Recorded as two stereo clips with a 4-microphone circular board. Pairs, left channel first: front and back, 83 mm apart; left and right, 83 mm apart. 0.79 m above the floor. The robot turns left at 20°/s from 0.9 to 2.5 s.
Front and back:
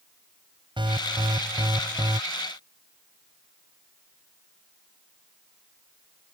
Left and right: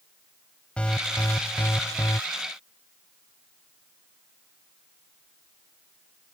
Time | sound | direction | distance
0.8 | an alarm | 165° left | ?